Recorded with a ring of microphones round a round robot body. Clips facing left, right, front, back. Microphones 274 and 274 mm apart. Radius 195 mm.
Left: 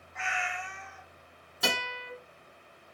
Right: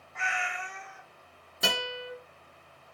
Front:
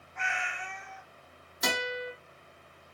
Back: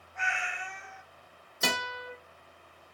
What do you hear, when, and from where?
0.1 s a cat meowing: 80° right, 1.4 m
1.6 s a guitar: 140° right, 1.0 m